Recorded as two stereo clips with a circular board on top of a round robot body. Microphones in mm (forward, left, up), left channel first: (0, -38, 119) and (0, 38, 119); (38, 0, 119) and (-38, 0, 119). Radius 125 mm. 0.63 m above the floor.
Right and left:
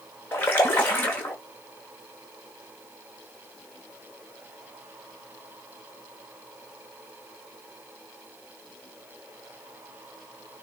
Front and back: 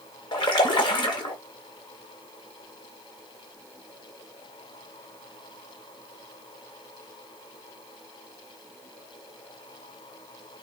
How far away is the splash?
About 0.9 m.